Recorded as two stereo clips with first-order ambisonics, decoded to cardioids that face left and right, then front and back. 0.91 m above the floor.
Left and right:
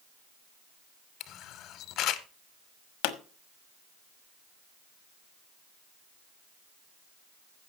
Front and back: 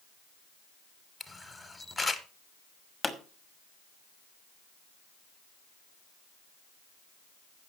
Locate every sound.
1.2 s a camera shutter: 85° left, 0.9 m
3.0 s a pop: 85° left, 1.2 m